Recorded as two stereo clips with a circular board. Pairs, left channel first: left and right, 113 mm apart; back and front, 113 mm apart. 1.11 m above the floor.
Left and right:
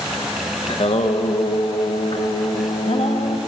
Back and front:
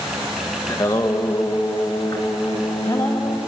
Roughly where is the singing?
Behind left.